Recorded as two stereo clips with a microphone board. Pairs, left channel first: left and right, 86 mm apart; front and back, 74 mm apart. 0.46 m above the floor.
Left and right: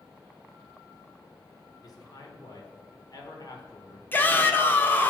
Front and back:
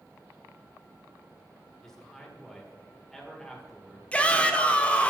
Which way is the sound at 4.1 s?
50° left.